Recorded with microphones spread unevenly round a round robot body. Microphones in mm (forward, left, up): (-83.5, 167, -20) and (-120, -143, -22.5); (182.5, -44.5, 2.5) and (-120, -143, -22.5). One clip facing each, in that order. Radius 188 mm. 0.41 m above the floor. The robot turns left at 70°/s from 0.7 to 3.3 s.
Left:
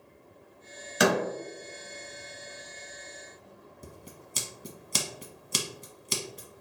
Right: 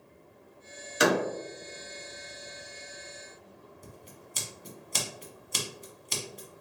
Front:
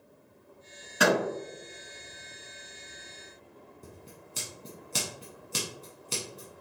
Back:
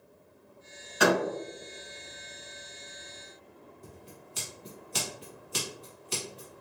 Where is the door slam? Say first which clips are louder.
Even, back 1 dB; 90° left, 1.5 m; by 1.2 s 70° left, 1.5 m.